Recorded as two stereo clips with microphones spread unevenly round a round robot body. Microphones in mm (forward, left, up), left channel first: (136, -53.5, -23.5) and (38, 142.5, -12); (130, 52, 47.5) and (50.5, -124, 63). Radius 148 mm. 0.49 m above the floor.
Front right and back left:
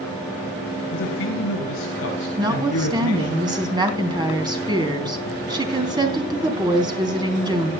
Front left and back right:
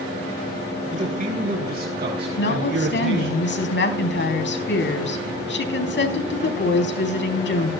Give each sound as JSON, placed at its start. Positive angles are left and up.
{"t": 0.9, "sound": "a man speaking", "azimuth_deg": -65, "distance_m": 3.0}
{"t": 2.4, "sound": "a woman speaking", "azimuth_deg": 45, "distance_m": 4.0}